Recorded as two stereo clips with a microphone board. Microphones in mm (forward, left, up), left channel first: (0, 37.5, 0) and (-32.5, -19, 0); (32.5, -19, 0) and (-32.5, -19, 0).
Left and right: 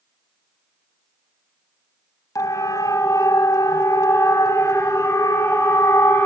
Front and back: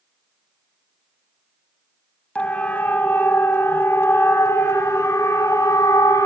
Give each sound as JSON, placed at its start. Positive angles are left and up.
{"t": 2.4, "sound": "a siren", "azimuth_deg": 65, "distance_m": 3.0}